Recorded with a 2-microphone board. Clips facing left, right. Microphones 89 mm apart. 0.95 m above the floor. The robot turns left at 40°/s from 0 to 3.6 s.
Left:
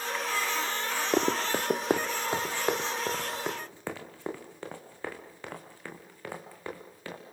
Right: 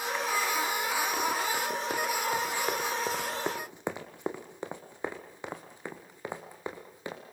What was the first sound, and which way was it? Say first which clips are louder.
Running footsteps: left 3 dB; 50° left (ahead or behind).